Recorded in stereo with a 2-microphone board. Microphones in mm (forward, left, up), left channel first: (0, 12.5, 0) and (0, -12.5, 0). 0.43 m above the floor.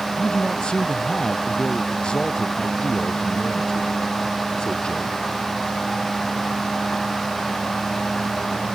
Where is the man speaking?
35° left (ahead or behind).